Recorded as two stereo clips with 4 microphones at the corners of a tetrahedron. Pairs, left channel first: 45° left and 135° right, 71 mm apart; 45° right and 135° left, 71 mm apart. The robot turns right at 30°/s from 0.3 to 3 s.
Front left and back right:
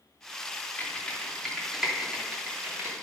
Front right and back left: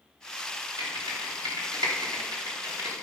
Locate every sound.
0.8 s typing on a keyboard: 110° left, 2.5 m; by 2.9 s 175° left, 2.5 m